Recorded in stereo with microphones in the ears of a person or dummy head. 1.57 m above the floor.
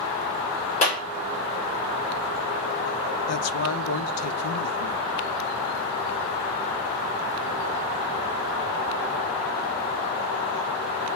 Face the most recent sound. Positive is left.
turn(degrees=85)